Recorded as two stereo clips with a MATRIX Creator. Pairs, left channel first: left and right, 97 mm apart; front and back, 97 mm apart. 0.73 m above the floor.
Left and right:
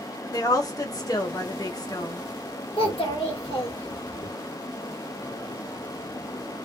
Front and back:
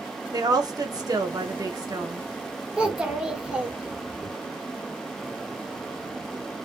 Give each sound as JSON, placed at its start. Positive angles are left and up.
{"t": 0.3, "sound": "a woman speaking", "azimuth_deg": 135, "distance_m": 0.9}
{"t": 2.8, "sound": "a child speaking", "azimuth_deg": 100, "distance_m": 1.3}